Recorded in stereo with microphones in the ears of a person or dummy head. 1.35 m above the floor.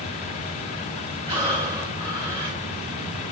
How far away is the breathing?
About 2.5 m.